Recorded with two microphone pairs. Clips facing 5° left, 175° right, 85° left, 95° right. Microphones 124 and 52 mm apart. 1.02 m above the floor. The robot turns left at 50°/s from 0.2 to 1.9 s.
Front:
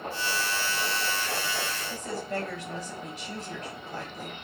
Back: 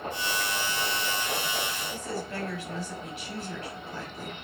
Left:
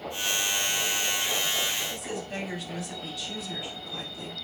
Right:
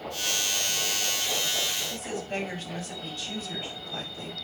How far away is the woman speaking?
About 4.5 m.